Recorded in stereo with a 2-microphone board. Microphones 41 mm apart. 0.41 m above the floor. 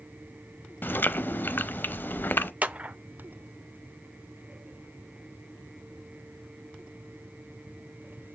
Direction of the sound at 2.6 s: 35° right (ahead or behind).